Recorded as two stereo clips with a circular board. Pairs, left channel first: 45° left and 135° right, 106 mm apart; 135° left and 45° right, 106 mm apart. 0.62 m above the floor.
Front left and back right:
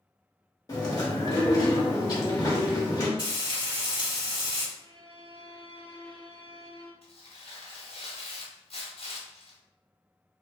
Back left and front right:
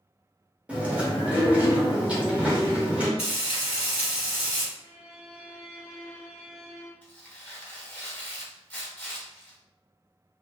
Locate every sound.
0.7 s chewing: 25° left, 0.8 m
3.2 s frying: 120° right, 1.9 m
4.8 s a violin: 125° right, 1.8 m
7.0 s tearing paper: 60° left, 0.7 m